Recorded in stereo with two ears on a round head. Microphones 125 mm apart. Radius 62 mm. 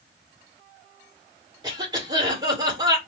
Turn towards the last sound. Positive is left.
turn(degrees=-30)  # may be behind; listen again after turning